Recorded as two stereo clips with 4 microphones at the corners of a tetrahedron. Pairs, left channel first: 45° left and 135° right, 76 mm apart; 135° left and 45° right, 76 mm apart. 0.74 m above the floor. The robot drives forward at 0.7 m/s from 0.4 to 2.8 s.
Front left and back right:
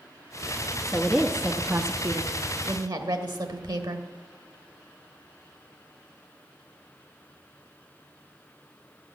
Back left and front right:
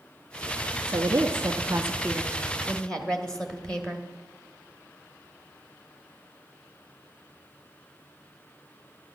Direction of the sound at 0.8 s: 40° right.